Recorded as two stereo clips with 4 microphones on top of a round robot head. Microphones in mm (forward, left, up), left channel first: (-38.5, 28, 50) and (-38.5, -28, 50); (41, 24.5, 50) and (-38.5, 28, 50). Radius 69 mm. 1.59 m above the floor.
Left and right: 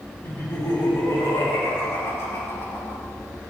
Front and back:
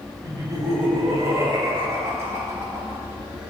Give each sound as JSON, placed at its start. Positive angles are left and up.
{"t": 0.2, "sound": "laughter", "azimuth_deg": 135, "distance_m": 3.0}